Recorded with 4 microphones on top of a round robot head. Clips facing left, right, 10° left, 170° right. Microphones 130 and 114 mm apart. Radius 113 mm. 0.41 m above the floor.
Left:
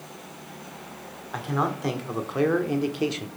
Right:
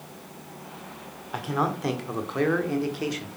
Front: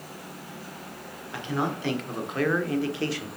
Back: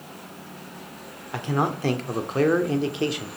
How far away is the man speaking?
About 1.7 m.